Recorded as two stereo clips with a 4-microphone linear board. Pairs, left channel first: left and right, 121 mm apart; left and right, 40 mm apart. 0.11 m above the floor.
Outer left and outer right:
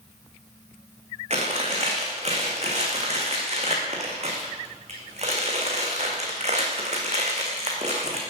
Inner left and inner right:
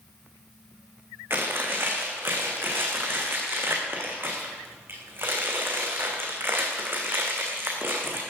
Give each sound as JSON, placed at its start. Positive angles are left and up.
{"t": 1.3, "sound": "chewing", "side_deg": -65, "distance_m": 4.0}